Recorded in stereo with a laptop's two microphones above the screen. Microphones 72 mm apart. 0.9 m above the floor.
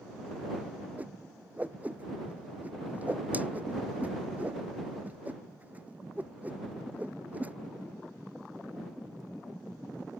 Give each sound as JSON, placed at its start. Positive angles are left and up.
{"t": 1.0, "sound": "a whoosh", "side_deg": -20}